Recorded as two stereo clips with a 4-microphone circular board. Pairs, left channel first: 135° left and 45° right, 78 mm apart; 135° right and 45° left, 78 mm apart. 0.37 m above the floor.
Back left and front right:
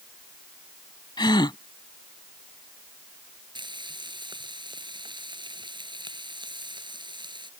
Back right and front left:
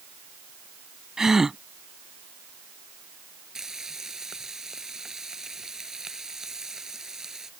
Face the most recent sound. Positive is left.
turn(degrees=-40)